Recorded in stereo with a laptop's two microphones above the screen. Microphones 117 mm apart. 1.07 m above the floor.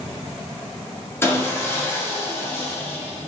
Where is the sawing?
20° left (ahead or behind), 0.7 m.